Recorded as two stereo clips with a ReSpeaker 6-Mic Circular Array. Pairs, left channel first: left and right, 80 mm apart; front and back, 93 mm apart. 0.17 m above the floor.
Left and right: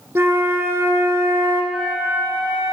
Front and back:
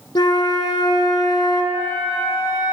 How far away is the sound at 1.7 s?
About 2.5 m.